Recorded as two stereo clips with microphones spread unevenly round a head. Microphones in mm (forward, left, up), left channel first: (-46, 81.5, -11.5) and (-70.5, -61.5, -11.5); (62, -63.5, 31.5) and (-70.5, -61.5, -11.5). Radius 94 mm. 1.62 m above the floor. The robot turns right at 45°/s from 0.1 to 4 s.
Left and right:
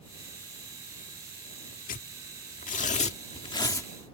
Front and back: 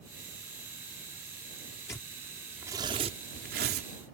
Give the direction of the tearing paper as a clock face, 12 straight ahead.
10 o'clock.